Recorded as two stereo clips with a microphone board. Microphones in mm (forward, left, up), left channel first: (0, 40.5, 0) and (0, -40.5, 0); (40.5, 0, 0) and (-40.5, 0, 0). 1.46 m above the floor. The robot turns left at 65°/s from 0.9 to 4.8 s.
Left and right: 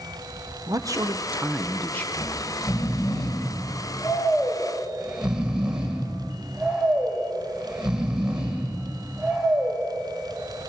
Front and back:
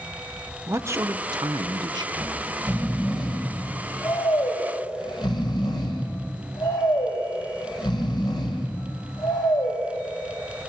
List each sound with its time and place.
0.7 s a man speaking: 130° right, 0.8 m; by 2.1 s 155° left, 0.8 m
2.2 s snoring: 165° left, 3 m; by 9.8 s 10° right, 3 m